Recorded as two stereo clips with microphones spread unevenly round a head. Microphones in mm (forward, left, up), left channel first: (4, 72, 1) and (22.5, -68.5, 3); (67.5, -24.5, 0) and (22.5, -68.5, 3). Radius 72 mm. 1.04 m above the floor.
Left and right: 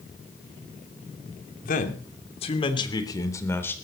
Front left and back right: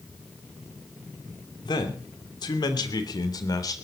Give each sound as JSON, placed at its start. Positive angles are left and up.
{"t": 1.6, "sound": "a man speaking", "azimuth_deg": 70, "distance_m": 3.0}